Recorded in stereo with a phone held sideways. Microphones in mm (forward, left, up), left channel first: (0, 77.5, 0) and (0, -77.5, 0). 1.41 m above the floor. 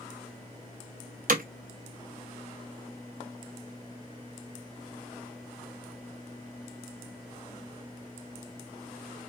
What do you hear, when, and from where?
1.3 s hammering: 65° right (ahead or behind), 0.5 m